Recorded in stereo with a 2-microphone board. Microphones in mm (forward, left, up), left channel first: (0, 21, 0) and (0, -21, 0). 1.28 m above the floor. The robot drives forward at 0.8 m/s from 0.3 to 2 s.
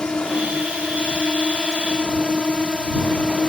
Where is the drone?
25° left (ahead or behind).